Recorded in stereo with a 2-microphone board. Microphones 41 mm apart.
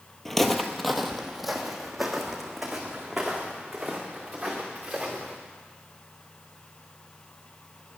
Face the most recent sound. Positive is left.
turn(degrees=-5)  # may be behind; listen again after turning